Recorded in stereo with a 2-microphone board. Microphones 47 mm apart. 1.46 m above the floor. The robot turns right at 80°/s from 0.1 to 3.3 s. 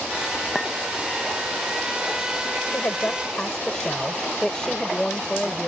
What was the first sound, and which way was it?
A clink, 5° left (ahead or behind).